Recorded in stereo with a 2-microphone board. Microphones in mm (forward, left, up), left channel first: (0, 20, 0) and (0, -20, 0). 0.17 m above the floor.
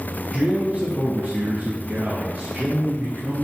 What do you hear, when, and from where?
0.3 s a man speaking: 35° right (ahead or behind), 1.3 m; by 3.4 s 60° right (ahead or behind), 2 m